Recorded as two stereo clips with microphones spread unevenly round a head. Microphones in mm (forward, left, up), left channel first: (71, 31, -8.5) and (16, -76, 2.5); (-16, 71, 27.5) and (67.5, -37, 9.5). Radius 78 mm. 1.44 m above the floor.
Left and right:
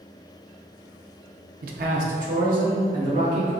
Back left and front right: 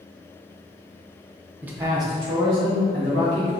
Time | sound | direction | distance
1.6 | a man speaking | 135° right | 0.7 m